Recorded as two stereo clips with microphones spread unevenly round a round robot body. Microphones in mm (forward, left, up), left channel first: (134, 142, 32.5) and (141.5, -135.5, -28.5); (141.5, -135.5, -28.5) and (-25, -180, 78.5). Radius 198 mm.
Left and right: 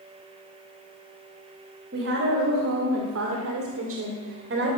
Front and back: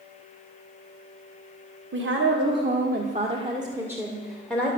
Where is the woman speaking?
140° right, 2.5 m; by 4.7 s 50° right, 2.5 m.